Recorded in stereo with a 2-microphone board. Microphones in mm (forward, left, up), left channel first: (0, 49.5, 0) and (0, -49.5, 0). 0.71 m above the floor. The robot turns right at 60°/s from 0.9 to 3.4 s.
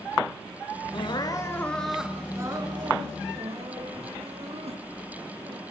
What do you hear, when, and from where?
0.9 s crying: 120° left, 3.5 m; by 5.6 s 90° right, 3.5 m